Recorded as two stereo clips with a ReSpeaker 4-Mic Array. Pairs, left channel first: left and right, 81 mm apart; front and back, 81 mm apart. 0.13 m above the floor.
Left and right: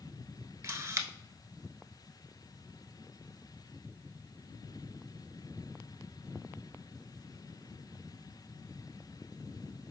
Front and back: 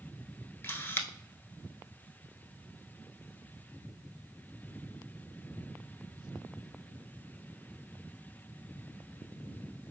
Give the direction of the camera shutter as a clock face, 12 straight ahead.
2 o'clock.